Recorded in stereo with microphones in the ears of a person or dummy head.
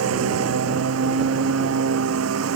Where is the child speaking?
I don't hear a child speaking.